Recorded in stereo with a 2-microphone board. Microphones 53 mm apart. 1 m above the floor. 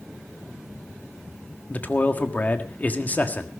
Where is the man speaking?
30° left (ahead or behind), 1.5 m.